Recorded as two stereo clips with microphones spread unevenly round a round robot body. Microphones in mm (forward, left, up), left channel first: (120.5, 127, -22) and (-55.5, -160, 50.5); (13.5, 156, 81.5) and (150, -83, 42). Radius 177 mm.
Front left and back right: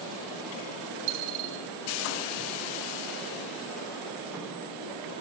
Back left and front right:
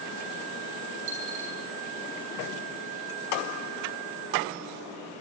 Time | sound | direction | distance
1.1 | a dropped coin | 95° right | 6 m